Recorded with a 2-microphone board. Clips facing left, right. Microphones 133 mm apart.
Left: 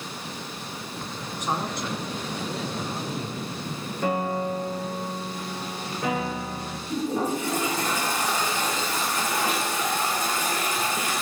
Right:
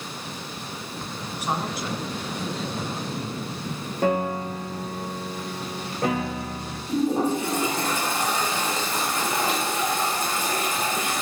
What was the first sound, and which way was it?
A man speaking, 10° right (ahead or behind).